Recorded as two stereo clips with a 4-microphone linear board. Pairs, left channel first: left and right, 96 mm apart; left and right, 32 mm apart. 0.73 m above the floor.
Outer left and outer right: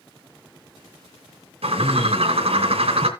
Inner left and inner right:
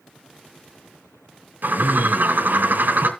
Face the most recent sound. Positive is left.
turn(degrees=-80)